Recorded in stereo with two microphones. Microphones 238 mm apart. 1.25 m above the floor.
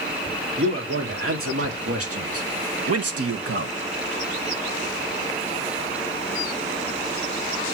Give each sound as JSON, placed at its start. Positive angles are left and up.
{"t": 0.6, "sound": "a man speaking", "side_deg": -60, "distance_m": 3.0}